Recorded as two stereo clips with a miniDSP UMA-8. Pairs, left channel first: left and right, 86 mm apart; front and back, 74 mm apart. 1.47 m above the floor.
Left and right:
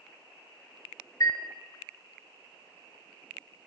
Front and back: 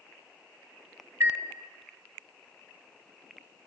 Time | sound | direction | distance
1.2 | a chime | 135° left | 1.9 m